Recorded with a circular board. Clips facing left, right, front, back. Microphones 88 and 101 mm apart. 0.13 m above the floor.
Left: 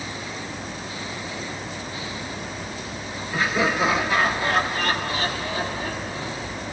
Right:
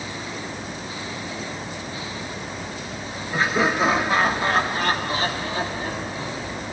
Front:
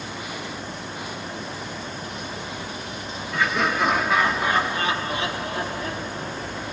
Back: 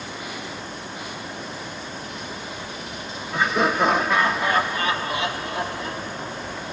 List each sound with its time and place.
3.3 s laughter: 120° right, 2 m; by 6.6 s 20° right, 4 m